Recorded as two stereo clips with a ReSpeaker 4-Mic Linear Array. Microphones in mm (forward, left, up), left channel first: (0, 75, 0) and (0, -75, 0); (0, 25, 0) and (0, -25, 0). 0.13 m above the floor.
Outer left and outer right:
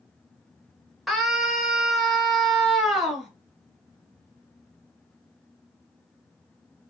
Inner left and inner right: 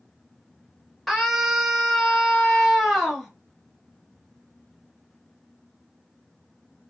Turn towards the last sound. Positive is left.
turn(degrees=0)  # may be behind; listen again after turning